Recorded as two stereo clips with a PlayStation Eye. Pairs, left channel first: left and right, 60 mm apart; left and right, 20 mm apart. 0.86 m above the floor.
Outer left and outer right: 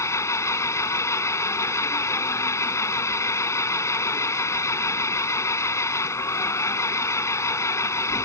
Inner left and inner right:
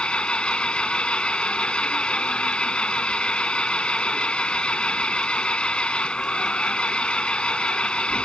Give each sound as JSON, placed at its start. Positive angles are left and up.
{"t": 0.0, "sound": "an engine running", "side_deg": 50}